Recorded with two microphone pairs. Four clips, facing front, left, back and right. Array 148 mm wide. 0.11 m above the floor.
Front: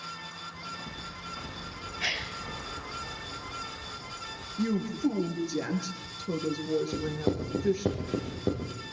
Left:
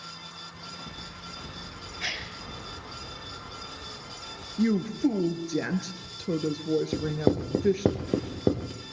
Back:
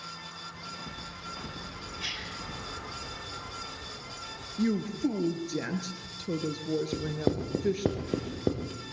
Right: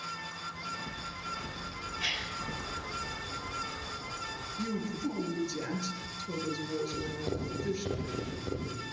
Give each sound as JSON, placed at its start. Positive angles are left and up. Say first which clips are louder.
{"t": 2.0, "sound": "a gasp", "louder": "left 4 dB, front 8 dB", "azimuth_deg": 25, "distance_m": 3.0}
{"t": 4.6, "sound": "a woman speaking", "louder": "left 11 dB, even", "azimuth_deg": 95, "distance_m": 2.0}
{"t": 6.9, "sound": "writing", "louder": "left 10 dB, even", "azimuth_deg": 105, "distance_m": 4.0}